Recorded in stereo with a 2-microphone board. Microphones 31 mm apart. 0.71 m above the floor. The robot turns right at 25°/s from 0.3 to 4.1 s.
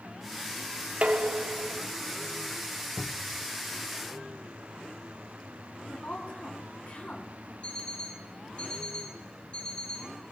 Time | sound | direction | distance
1.0 | dishes clattering | 40° right (ahead or behind) | 0.9 m
3.0 | a cupboard door | 5° left (ahead or behind) | 0.6 m
5.9 | a woman speaking | 50° left (ahead or behind) | 5.5 m
7.6 | an alarm clock | 45° left (ahead or behind) | 3.5 m